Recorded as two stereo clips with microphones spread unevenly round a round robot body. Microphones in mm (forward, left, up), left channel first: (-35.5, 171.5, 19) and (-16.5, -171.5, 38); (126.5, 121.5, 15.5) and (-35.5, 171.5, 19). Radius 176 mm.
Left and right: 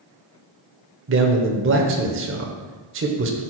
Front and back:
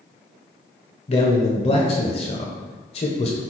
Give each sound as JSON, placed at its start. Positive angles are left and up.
{"t": 1.1, "sound": "a man speaking", "azimuth_deg": -45, "distance_m": 1.0}